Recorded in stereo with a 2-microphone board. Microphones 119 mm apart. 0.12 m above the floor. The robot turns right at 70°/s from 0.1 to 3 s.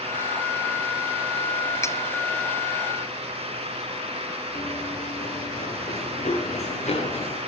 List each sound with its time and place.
1.8 s cutlery clinking: 25° left (ahead or behind), 1.2 m; by 2.0 s 30° left (ahead or behind), 1.2 m
4.5 s running footsteps: 70° left (ahead or behind), 3 m; by 7.4 s 65° left (ahead or behind), 5.5 m